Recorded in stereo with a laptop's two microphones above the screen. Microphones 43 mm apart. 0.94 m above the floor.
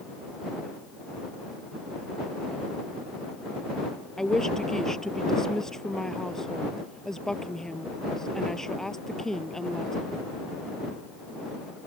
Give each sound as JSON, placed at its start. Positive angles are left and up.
{"t": 4.2, "sound": "a woman speaking", "side_deg": 10}